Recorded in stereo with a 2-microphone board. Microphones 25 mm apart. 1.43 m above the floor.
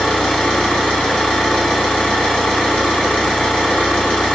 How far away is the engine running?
About 1.0 m.